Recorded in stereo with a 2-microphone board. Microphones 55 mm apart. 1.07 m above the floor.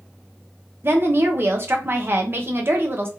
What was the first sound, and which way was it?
A woman speaking, 40° right (ahead or behind).